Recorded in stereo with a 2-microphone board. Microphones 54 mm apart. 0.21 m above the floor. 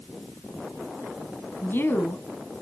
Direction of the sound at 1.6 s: 45° left (ahead or behind).